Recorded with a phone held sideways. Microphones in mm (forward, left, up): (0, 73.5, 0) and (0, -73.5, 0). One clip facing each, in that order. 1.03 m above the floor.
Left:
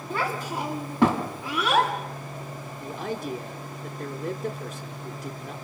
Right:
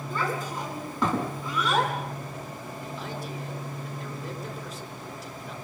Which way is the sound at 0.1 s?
70° left (ahead or behind).